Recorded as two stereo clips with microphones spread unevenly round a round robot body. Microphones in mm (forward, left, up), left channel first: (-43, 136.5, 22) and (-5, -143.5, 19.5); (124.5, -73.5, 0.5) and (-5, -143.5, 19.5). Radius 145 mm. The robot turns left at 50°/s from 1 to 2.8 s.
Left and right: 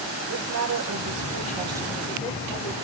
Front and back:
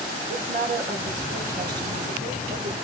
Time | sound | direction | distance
0.3 | a woman speaking | 125° right | 4 m